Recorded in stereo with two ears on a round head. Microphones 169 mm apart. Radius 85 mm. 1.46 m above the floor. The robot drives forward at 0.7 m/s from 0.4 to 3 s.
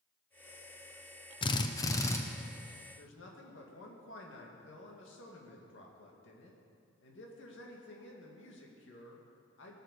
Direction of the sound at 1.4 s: 30° left (ahead or behind).